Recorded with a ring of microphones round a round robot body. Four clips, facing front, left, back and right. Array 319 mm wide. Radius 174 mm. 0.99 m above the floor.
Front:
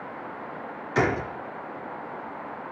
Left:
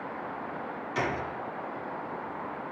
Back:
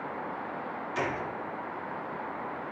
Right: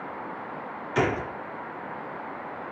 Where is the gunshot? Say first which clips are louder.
Right 6 dB, front 9 dB; 35° right, 0.9 m.